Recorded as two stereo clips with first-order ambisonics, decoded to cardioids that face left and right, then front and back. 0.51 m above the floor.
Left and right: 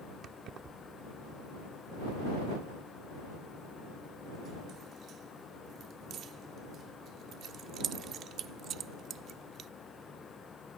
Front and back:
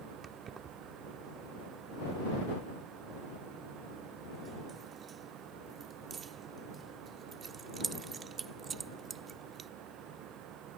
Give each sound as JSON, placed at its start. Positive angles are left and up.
{"t": 0.2, "sound": "keys jangling", "azimuth_deg": -125}